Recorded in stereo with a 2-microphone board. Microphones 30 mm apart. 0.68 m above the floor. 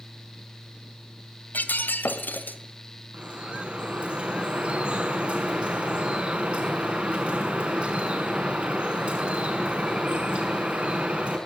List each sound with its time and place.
1.5 s breaking glass: 80° left, 1.8 m
3.1 s dripping: 35° right (ahead or behind), 6 m